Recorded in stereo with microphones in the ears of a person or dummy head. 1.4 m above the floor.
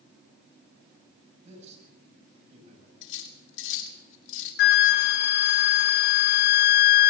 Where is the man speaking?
40° right (ahead or behind), 8.5 m.